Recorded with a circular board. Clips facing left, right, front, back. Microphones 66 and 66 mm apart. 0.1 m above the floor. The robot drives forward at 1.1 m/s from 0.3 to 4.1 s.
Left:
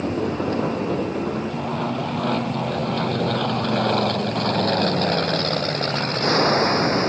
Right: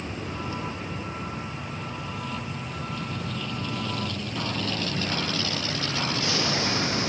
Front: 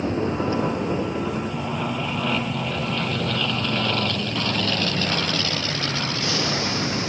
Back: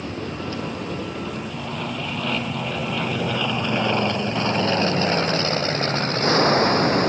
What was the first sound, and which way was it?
An aircraft, 60° left.